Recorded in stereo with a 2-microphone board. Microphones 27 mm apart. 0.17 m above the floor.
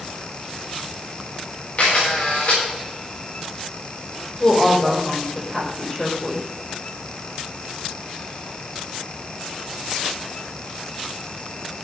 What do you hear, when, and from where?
1.8 s a camera shutter: 60° left (ahead or behind), 8.5 m
4.4 s a woman speaking: 25° left (ahead or behind), 6 m